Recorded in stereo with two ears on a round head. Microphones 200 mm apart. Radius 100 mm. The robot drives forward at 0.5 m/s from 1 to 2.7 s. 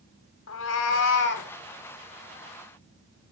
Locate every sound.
0.5 s a cat meowing: 60° left (ahead or behind), 0.8 m; by 1.5 s 50° left (ahead or behind), 0.9 m